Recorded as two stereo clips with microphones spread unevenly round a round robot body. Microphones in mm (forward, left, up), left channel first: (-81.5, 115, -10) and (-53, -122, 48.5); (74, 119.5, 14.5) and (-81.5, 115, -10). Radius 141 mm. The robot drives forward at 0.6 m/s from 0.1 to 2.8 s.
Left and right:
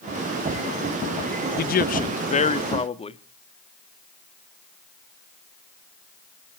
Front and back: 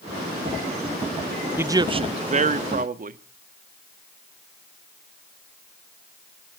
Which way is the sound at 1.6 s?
115° left.